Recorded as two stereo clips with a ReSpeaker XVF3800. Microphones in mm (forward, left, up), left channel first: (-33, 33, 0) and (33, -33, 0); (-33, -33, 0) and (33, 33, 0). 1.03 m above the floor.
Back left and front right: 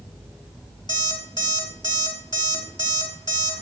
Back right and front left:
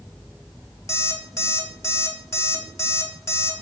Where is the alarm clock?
170° left, 2.5 m.